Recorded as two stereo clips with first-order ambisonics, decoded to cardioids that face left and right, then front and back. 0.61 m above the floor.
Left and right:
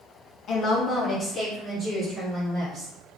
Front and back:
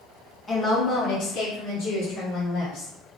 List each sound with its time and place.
0.5 s a woman speaking: 65° left, 1.0 m; by 2.9 s 15° right, 2.5 m